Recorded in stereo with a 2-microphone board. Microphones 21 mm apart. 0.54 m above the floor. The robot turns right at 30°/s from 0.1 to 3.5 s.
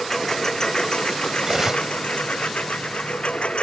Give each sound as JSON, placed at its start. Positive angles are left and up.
{"t": 0.0, "sound": "a lawn mower", "azimuth_deg": 15}
{"t": 1.4, "sound": "cutlery clinking", "side_deg": -15}